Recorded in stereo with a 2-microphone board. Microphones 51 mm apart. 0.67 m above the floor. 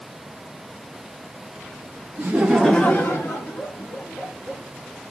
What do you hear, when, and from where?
2.2 s laughter: 30° right (ahead or behind), 0.7 m; by 4.6 s 65° left (ahead or behind), 2.5 m